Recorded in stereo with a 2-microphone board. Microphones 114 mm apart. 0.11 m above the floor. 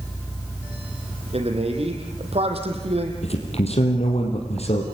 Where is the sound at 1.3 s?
65° right (ahead or behind), 4 m.